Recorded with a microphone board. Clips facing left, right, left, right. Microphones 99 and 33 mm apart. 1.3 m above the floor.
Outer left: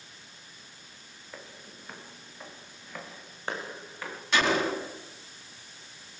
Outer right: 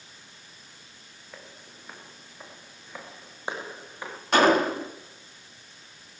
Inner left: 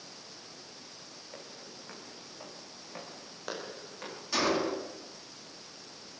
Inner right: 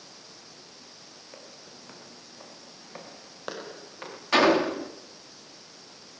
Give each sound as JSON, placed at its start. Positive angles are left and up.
{"t": 1.3, "sound": "footsteps", "side_deg": -5, "distance_m": 5.5}
{"t": 4.3, "sound": "a gunshot", "side_deg": -45, "distance_m": 2.0}